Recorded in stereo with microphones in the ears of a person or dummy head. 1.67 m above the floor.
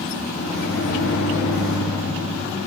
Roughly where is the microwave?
Left.